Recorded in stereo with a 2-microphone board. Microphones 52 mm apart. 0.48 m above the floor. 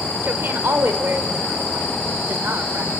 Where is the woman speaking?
45° right (ahead or behind), 1.8 m.